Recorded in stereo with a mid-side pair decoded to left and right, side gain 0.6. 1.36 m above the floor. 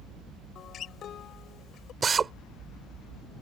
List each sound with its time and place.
0.6 s a guitar: 50° left
2.0 s a drill: 30° right